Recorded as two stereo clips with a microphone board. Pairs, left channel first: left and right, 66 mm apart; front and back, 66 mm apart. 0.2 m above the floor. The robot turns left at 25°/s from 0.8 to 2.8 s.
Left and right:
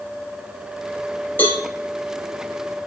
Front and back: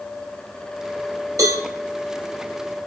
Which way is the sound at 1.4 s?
150° left.